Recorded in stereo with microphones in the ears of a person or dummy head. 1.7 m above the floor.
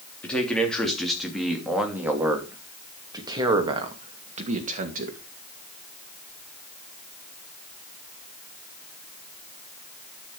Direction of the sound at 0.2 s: 5° left (ahead or behind).